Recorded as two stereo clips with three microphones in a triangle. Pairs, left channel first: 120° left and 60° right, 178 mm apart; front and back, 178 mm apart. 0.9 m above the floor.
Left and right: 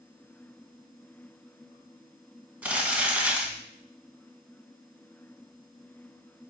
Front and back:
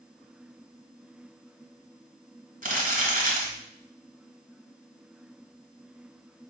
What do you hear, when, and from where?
2.6 s crumpling: 140° right, 2 m